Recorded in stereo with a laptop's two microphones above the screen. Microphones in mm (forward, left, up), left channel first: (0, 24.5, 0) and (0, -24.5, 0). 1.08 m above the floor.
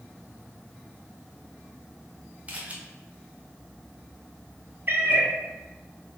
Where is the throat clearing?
I don't hear throat clearing.